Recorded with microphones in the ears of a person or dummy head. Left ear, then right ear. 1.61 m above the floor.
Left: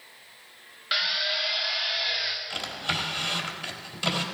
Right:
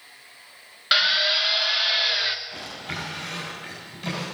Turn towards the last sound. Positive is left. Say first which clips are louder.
# left 4 dB
turn(degrees=50)  # may be behind; listen again after turning